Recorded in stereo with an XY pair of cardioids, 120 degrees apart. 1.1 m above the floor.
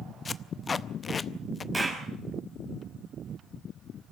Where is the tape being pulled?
30° left, 0.7 m.